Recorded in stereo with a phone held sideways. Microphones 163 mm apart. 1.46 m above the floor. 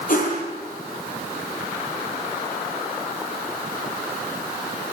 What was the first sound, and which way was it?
A whoosh, 60° left (ahead or behind).